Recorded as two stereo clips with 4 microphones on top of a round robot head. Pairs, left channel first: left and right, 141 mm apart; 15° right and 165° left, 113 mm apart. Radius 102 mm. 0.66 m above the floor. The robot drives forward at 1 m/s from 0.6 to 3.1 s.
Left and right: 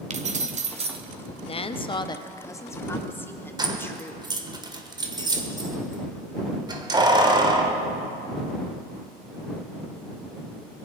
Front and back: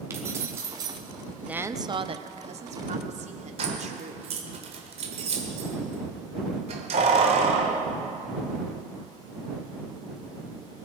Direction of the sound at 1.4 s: 90° left.